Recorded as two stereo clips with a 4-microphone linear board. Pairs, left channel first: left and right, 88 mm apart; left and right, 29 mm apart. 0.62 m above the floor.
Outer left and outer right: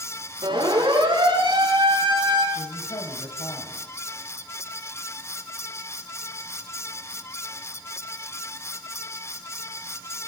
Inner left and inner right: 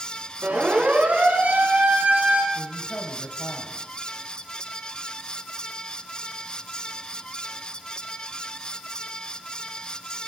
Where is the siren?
70° right (ahead or behind), 10 m.